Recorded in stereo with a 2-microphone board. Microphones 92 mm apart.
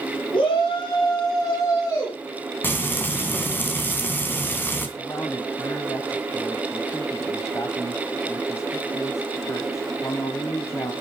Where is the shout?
60° left (ahead or behind), 3.5 m; by 2.2 s 30° left (ahead or behind), 5 m.